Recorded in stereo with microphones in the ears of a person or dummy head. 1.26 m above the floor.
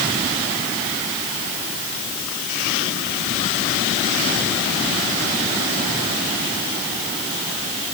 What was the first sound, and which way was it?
Only background noise.